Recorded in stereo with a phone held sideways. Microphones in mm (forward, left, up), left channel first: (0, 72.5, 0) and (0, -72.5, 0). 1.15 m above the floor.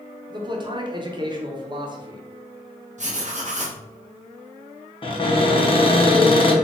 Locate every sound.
0.3 s a man speaking: 30° right (ahead or behind), 0.6 m
3.0 s writing: 50° right (ahead or behind), 0.8 m
5.0 s a cupboard door: 35° left (ahead or behind), 0.7 m